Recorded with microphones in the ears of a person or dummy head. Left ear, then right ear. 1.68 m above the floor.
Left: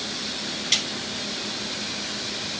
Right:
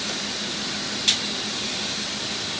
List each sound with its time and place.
Only background noise.